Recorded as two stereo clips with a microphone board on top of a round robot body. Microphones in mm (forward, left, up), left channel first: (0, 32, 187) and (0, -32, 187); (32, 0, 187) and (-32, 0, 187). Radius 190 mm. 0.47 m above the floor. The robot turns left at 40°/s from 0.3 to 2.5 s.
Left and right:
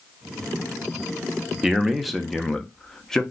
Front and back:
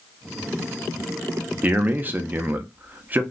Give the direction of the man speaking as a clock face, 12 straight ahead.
5 o'clock.